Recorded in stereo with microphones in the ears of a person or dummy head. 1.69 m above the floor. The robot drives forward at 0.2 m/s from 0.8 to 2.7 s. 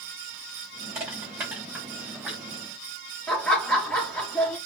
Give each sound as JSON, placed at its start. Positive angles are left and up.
{"t": 0.9, "sound": "crushing", "side_deg": -5, "distance_m": 1.6}
{"t": 3.3, "sound": "laughter", "side_deg": 5, "distance_m": 1.0}